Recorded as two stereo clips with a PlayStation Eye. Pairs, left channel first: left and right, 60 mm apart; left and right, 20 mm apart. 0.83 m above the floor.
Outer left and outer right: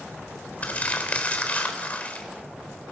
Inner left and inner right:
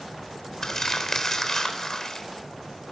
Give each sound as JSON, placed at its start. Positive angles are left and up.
{"t": 0.6, "sound": "crumpling", "side_deg": 25, "distance_m": 3.5}